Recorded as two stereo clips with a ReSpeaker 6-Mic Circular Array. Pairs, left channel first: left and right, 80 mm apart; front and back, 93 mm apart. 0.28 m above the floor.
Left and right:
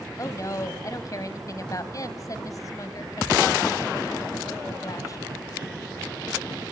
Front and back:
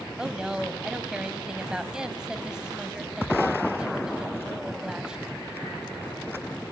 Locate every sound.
0.2 s a woman speaking: 100° left, 1.4 m